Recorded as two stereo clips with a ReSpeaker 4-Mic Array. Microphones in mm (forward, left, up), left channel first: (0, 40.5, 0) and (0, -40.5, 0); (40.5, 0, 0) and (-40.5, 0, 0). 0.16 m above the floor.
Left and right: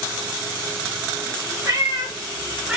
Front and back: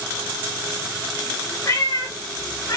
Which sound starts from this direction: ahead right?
A cat meowing, at 1.6 s.